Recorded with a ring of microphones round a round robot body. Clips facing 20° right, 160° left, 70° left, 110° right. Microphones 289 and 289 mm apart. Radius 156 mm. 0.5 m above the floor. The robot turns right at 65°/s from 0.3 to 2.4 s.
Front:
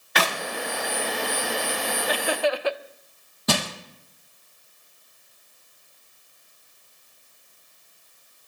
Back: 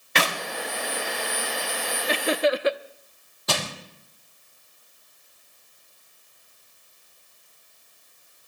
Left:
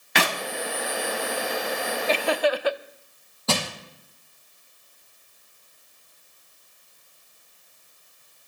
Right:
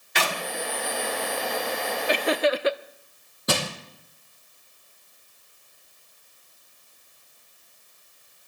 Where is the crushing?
40° right, 4 m.